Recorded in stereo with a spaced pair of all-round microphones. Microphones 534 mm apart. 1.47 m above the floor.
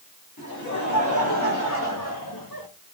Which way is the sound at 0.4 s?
30° left (ahead or behind).